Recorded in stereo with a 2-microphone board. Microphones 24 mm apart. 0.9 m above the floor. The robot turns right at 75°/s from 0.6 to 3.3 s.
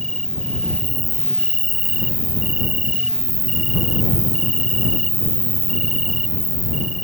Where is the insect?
150° left; by 7.0 s 10° right.